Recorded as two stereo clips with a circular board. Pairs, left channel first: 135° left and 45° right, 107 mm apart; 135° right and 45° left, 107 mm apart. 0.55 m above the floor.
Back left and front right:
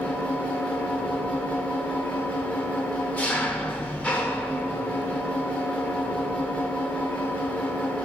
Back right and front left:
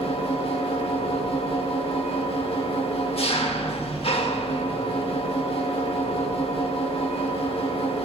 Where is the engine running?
150° right, 1.0 m.